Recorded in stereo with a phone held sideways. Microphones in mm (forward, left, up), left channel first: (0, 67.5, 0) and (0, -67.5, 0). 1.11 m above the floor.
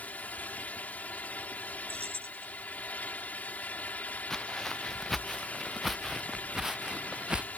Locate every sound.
0.0 s a fan: 10° left (ahead or behind)
1.9 s keys jangling: 45° right (ahead or behind)
4.3 s footsteps: 5° left (ahead or behind); by 7.5 s 5° right (ahead or behind)